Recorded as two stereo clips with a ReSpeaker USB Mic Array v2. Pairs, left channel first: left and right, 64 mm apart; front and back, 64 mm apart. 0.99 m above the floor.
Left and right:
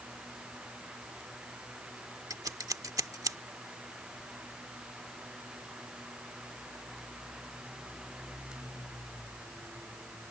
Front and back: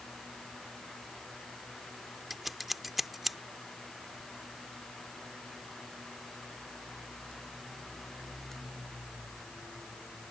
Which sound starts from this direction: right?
Scissors, at 2.3 s.